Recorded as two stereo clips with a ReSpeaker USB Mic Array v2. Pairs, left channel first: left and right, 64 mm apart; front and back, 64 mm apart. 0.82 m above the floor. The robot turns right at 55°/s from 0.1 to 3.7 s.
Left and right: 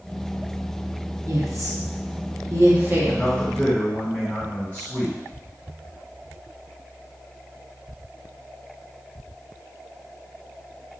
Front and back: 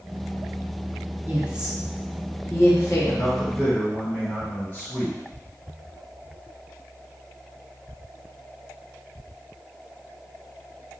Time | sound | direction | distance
1.3 | a woman speaking | 120° right | 1.3 m
3.1 | a man speaking | 15° left | 1.6 m